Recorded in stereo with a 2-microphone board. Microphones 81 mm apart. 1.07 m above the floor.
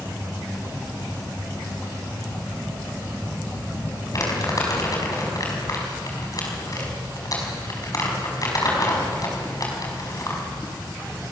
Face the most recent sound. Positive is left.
turn(degrees=45)  # may be behind; listen again after turning